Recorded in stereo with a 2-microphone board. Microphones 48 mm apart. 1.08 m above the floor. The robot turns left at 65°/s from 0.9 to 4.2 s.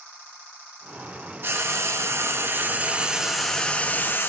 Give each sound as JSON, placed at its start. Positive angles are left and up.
{"t": 1.4, "sound": "frying", "azimuth_deg": -55, "distance_m": 1.6}